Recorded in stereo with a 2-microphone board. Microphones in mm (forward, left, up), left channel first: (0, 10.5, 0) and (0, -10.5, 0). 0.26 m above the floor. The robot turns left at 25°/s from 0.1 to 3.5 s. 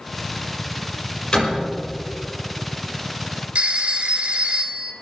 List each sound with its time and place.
1.3 s a door slam: 50° left (ahead or behind), 5.5 m; by 1.7 s 60° left (ahead or behind), 5.5 m
3.5 s a phone ringing: 60° right (ahead or behind), 1.9 m